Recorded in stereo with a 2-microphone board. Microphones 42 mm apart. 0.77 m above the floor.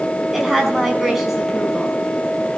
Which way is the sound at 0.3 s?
5° right (ahead or behind).